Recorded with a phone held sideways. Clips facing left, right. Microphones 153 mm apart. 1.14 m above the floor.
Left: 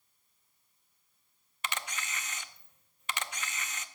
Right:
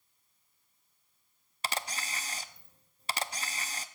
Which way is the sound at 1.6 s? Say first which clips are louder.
Right 2 dB; 35° right (ahead or behind).